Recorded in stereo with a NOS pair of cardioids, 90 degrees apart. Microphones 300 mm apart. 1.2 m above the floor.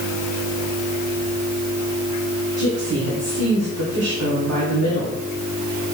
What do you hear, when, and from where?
2.6 s a woman speaking: 50° right, 3 m